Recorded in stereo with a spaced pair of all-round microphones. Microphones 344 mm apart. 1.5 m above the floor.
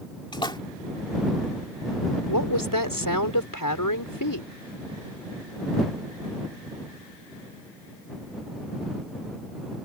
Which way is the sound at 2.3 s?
70° left (ahead or behind).